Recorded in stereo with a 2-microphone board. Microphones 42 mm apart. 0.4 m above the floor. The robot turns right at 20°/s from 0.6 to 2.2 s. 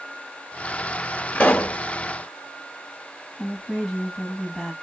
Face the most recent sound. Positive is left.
turn(degrees=10)  # may be behind; listen again after turning